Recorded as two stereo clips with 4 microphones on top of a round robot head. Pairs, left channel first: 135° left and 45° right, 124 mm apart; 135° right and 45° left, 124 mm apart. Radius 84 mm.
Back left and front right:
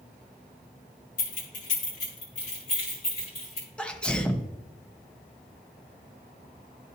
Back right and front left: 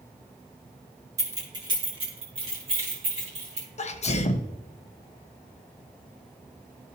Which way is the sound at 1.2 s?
110° left.